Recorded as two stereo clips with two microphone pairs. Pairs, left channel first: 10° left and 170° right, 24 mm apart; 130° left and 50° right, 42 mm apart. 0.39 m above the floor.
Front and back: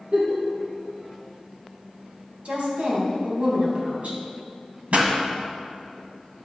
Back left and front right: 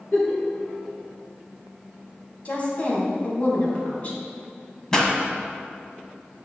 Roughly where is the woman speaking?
Behind.